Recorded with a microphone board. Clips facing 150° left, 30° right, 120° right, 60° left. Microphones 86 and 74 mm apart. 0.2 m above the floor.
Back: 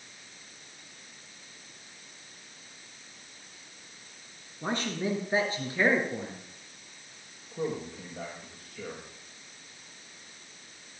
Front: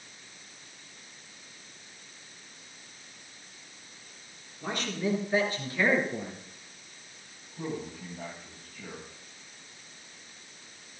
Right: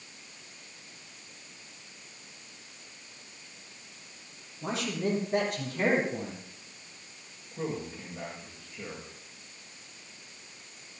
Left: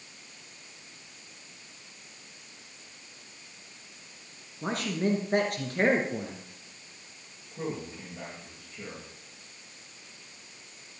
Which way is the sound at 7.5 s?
150° left.